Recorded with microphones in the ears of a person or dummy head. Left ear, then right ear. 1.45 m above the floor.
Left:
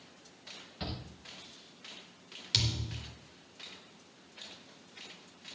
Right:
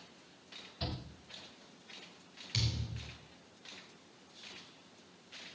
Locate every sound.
0.8 s a shout: 35° left (ahead or behind), 5 m
2.5 s a thud: 45° left (ahead or behind), 3.5 m